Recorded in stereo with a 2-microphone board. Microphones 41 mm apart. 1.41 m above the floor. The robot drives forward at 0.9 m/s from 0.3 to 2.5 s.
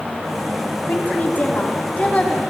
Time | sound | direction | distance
0.9 | a woman speaking | 50° left (ahead or behind) | 3 m